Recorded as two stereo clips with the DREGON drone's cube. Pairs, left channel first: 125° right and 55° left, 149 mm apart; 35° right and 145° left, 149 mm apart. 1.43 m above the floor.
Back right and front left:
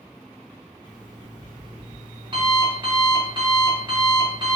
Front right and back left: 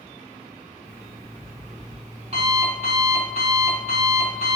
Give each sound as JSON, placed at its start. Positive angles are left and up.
{"t": 0.8, "sound": "an alarm clock", "azimuth_deg": 110, "distance_m": 1.2}